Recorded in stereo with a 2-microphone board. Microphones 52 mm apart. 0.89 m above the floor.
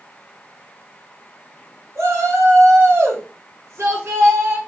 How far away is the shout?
About 4 m.